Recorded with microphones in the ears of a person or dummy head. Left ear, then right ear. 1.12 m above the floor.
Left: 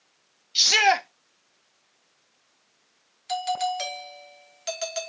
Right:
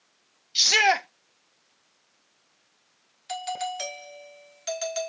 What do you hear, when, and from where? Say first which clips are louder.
0.6 s a shout: left 1 dB; 5° left (ahead or behind), 0.8 m
3.3 s a doorbell: left 5 dB; 5° left (ahead or behind), 1.1 m